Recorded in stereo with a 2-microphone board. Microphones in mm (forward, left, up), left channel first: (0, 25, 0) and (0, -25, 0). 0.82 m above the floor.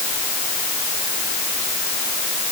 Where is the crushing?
No crushing in this recording.